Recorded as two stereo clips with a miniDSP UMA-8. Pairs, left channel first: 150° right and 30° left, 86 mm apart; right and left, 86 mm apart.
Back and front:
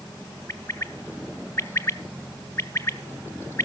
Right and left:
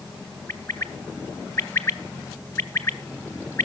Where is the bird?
125° right, 0.6 m.